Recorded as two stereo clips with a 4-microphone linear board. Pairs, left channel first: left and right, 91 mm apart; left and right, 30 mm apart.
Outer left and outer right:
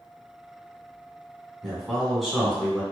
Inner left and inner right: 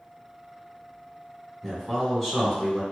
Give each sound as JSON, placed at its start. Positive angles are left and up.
{"t": 1.6, "sound": "a man speaking", "side_deg": 0, "distance_m": 1.1}